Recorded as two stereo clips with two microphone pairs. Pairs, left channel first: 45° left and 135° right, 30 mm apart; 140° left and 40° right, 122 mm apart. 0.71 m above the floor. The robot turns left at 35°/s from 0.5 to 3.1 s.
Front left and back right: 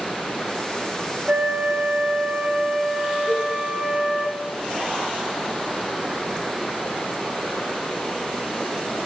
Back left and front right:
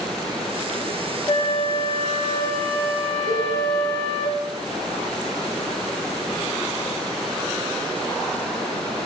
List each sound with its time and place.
1.3 s a flute: 165° right, 1.3 m; by 4.3 s 135° left, 1.3 m
3.3 s a cowbell: 45° right, 4.5 m